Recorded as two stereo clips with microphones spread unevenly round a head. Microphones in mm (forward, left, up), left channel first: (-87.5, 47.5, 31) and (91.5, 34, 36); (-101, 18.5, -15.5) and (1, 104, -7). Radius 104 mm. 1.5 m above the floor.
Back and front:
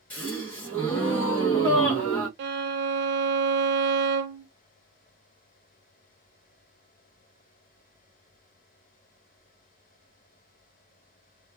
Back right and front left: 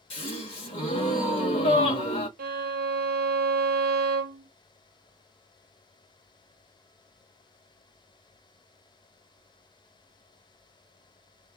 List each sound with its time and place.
0.1 s a gasp: 100° right, 0.9 m
2.4 s a violin: 25° left, 0.6 m